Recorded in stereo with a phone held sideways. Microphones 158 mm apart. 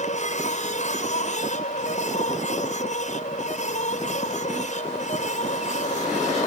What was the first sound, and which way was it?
A machine running, 55° left (ahead or behind).